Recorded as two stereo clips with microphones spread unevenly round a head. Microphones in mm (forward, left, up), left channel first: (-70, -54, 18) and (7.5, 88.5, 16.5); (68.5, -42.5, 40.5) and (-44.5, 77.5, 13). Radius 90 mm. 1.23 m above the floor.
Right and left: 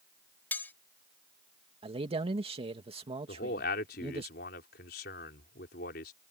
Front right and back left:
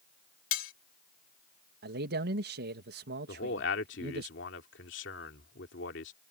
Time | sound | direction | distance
0.5 | cutlery clinking | 35° right | ?
1.8 | a man speaking | 120° left | ?
3.3 | a man speaking | 75° right | ?